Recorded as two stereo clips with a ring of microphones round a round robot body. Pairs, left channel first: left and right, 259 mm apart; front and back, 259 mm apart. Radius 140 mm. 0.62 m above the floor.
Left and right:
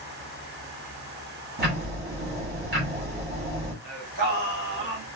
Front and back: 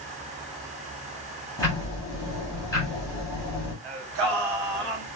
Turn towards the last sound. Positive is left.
turn(degrees=-145)